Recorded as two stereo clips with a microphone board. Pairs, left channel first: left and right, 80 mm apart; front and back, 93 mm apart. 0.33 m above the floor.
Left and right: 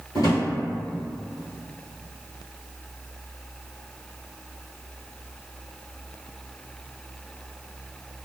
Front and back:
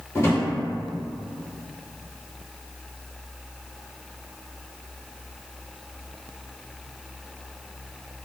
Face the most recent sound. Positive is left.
turn(degrees=60)